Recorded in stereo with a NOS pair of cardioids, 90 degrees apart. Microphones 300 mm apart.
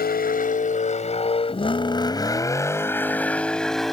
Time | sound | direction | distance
0.0 | a vehicle | 30° left | ?